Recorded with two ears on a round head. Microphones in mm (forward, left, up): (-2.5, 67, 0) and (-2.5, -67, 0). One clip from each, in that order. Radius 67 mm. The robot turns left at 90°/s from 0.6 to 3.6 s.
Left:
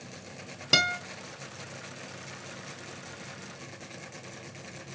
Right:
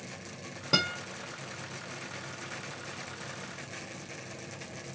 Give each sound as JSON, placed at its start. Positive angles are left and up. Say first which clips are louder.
{"t": 0.7, "sound": "a guitar", "louder": "left 4 dB", "side_deg": 65, "distance_m": 1.1}